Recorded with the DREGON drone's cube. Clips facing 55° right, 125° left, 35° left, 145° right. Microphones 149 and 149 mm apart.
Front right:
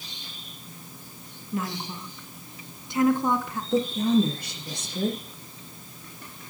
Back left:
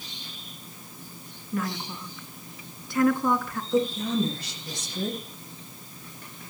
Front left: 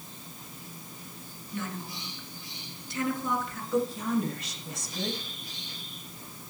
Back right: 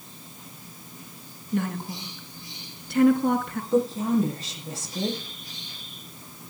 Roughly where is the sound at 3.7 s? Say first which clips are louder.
Front right 3 dB, back right 5 dB; right.